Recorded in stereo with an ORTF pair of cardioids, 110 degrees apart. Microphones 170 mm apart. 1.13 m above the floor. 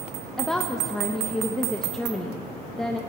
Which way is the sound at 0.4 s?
5° left.